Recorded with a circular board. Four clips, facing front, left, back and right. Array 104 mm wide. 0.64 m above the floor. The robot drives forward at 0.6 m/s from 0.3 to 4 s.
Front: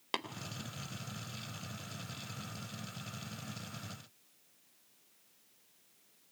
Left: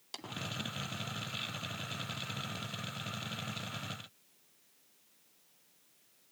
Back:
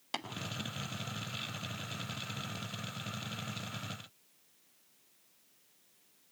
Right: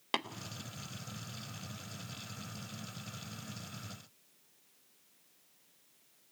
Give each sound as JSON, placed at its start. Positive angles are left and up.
{"t": 0.1, "sound": "tapping", "azimuth_deg": -60, "distance_m": 2.0}